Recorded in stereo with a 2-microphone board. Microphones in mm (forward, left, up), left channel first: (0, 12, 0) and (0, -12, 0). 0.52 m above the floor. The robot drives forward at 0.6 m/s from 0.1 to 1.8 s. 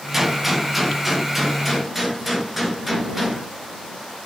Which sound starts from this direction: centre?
A gunshot, at 0.1 s.